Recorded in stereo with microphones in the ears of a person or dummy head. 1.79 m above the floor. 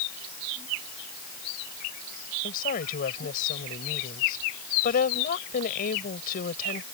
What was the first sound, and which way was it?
A woman speaking, 50° left (ahead or behind).